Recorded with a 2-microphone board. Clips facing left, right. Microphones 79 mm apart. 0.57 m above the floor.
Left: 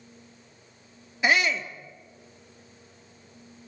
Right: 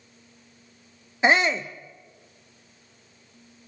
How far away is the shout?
About 0.9 m.